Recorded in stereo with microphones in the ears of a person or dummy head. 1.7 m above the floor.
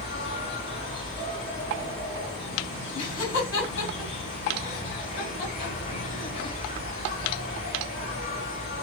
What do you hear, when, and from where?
0.0 s an insect: 30° left (ahead or behind), 0.9 m
3.0 s laughter: 80° left, 1.8 m